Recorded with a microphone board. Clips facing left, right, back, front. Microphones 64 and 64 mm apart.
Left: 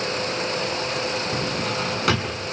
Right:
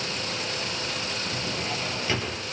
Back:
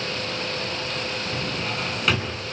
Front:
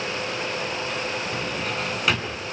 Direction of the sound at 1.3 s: 85° left.